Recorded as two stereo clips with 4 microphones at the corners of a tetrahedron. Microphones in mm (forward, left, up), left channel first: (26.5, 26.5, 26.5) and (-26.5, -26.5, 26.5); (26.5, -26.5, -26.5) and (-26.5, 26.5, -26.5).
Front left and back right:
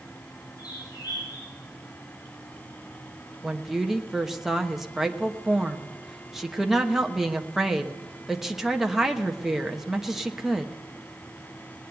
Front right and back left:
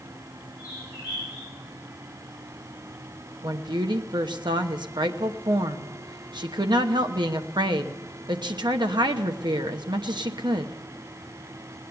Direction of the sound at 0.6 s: 65° left.